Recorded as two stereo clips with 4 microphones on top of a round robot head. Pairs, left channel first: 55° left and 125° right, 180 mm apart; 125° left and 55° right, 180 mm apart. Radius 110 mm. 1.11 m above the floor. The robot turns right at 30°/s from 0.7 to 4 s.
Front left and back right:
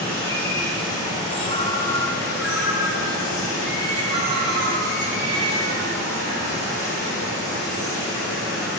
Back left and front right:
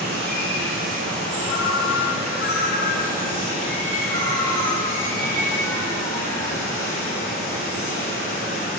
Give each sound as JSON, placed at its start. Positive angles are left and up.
{"t": 0.0, "sound": "running water", "azimuth_deg": -20, "distance_m": 4.0}
{"t": 1.5, "sound": "a ringtone", "azimuth_deg": 115, "distance_m": 1.1}